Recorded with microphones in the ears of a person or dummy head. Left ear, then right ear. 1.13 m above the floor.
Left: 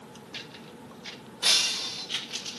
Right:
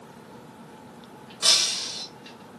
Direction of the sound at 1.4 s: 50° right (ahead or behind).